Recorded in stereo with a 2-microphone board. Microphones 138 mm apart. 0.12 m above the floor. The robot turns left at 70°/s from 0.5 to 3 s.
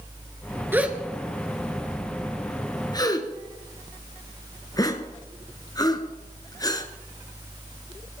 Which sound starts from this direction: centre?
A gasp, at 0.7 s.